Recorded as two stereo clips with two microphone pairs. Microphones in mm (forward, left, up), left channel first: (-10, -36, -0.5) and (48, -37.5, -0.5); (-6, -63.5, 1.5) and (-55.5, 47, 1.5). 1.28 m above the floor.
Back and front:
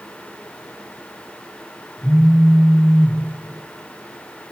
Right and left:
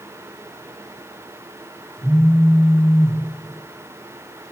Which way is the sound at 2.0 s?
155° right.